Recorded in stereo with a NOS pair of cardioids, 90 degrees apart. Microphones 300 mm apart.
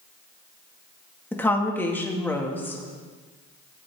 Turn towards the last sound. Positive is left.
turn(degrees=5)